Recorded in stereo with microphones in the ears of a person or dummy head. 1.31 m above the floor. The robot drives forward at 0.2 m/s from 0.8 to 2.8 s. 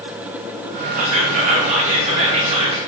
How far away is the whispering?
About 0.7 m.